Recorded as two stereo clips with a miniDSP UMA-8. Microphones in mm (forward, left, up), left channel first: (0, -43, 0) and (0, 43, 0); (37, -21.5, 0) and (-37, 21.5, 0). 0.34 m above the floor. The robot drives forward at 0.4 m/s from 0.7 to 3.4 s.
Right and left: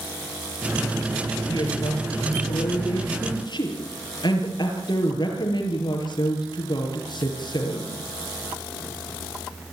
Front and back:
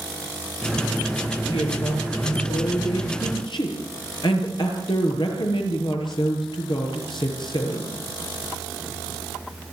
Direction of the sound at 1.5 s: 50° right.